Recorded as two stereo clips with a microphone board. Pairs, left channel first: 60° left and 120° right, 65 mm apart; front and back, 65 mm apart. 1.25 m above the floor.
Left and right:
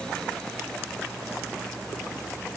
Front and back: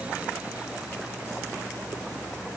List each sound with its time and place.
Only background noise.